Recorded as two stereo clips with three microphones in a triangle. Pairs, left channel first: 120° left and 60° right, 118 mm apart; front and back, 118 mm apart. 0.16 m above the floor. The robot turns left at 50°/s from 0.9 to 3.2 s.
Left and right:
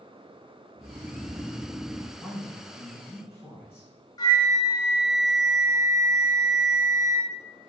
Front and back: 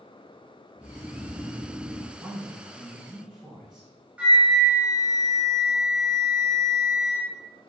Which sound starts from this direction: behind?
A man speaking, at 2.2 s.